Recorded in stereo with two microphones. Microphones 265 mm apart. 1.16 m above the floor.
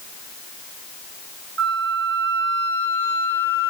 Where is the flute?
50° right (ahead or behind), 0.9 m.